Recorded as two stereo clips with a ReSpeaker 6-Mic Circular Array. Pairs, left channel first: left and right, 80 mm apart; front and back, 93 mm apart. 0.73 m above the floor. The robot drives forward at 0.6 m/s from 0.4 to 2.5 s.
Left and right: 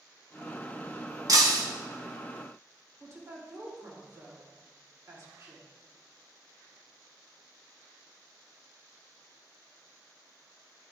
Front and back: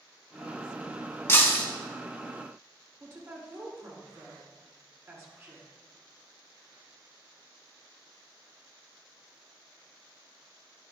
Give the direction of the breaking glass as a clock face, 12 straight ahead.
2 o'clock.